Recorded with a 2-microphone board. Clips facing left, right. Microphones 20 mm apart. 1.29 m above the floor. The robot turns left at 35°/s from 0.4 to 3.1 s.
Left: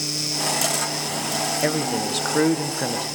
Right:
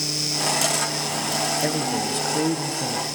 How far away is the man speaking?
About 1.0 m.